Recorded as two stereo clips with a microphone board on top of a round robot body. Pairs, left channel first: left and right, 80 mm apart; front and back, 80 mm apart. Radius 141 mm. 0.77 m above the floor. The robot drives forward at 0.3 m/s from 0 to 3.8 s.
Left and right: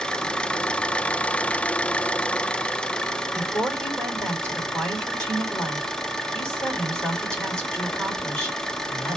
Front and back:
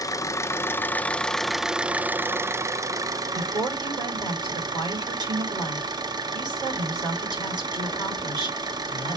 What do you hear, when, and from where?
0.0 s an engine running: 15° left, 0.7 m; by 9.2 s 170° left, 0.9 m
3.3 s a woman speaking: 165° left, 4 m